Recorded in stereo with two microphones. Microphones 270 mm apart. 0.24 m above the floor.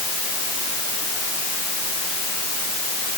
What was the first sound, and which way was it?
Only background noise.